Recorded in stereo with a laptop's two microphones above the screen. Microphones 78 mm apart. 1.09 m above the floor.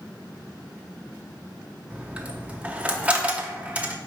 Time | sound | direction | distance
1.9 | a dropped coin | 15° right (ahead or behind) | 0.6 m